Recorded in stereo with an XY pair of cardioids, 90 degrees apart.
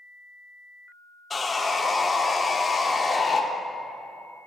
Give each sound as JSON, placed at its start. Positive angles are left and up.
{"t": 1.3, "sound": "sawing", "azimuth_deg": 30, "distance_m": 0.5}